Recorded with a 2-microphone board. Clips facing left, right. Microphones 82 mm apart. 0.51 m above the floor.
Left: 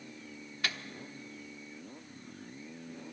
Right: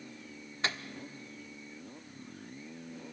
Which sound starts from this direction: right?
A microwave, at 0.6 s.